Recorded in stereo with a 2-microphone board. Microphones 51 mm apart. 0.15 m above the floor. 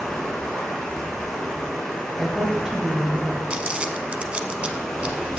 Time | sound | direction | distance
0.0 | running water | 5° left (ahead or behind) | 3.5 m
2.2 | a woman speaking | 10° right (ahead or behind) | 2.5 m
3.5 | crumpling | 25° right (ahead or behind) | 0.7 m